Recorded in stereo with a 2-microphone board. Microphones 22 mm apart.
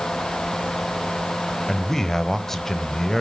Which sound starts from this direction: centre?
A man speaking, at 1.7 s.